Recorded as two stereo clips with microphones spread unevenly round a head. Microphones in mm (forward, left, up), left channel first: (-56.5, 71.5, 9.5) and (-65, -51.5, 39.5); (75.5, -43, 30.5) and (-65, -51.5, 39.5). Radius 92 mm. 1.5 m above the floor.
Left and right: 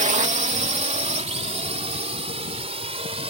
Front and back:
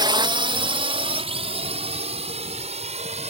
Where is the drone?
120° right; by 3.3 s 135° right.